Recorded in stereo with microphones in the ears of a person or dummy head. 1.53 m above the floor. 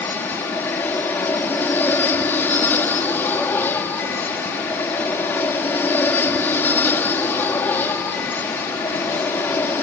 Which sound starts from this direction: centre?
An aircraft, at 0.0 s.